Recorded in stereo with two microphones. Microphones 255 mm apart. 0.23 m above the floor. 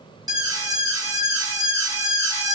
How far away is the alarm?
About 2.5 m.